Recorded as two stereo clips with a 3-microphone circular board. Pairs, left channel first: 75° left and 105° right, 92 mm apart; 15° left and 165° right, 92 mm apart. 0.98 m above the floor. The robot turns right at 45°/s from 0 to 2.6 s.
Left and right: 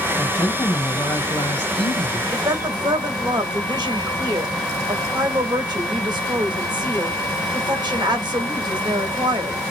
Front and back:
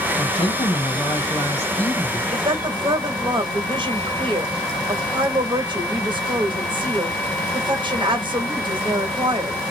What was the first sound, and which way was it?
A woman speaking, 5° left.